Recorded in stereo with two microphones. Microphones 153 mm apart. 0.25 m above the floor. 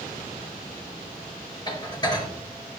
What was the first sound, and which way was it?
Dishes clattering, 30° left (ahead or behind).